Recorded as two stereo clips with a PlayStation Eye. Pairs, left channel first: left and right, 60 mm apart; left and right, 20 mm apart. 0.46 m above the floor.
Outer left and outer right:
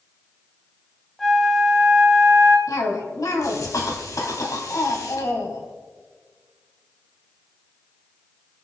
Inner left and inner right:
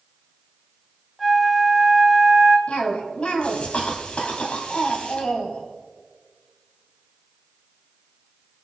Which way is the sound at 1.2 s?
5° left (ahead or behind).